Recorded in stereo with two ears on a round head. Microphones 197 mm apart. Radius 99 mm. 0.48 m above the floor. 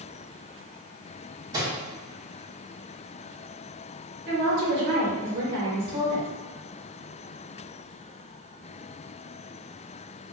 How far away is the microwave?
About 0.7 m.